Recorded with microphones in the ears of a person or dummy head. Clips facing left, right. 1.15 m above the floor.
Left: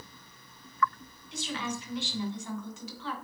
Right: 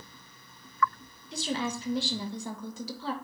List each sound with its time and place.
1.3 s a woman speaking: 25° right (ahead or behind), 0.8 m